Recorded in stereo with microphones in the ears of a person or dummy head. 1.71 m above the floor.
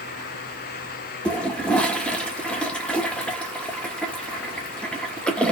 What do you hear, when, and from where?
1.2 s a toilet flushing: 5° left (ahead or behind), 0.8 m